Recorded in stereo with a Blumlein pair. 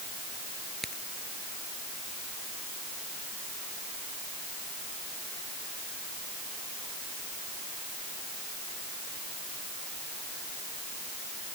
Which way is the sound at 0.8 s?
5° right.